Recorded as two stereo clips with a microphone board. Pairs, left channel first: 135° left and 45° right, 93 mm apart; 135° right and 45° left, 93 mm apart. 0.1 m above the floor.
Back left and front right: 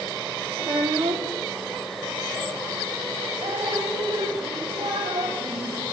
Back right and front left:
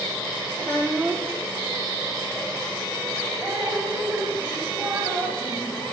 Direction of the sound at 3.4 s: 35° right.